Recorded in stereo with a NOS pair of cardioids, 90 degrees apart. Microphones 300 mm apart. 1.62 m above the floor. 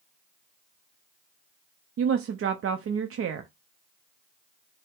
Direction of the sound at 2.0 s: 50° right.